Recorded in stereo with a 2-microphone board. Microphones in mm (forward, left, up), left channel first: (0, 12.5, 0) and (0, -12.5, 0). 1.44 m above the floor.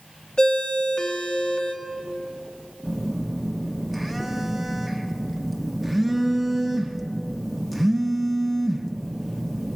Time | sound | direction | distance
0.4 | a ringtone | 35° left (ahead or behind) | 1.5 m
2.8 | a phone buzzing | 5° right (ahead or behind) | 0.9 m